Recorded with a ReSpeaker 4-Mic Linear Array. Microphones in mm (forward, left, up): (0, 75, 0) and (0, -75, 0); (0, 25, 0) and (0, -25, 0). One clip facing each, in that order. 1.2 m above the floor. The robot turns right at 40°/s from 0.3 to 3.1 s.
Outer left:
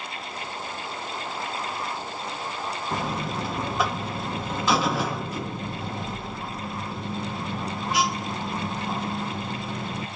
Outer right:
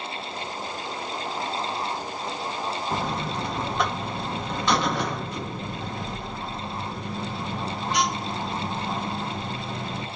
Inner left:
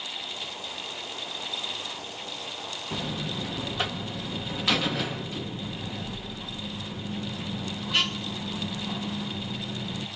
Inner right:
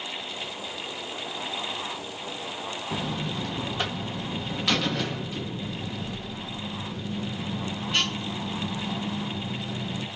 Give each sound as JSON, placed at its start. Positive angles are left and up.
{"t": 2.9, "sound": "a buzzer", "side_deg": -5, "distance_m": 0.7}